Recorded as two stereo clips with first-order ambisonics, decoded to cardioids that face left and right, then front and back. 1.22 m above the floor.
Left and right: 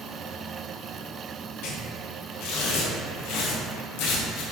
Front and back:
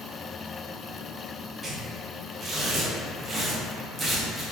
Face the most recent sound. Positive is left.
turn(degrees=105)